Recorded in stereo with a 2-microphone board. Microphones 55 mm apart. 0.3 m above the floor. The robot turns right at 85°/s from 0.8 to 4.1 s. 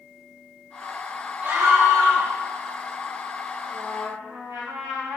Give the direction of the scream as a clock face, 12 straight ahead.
1 o'clock.